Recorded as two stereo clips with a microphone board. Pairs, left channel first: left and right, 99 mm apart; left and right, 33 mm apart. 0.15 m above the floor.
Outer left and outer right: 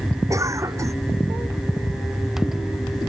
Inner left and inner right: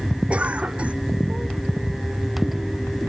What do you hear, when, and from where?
0.3 s a cough: 30° right (ahead or behind)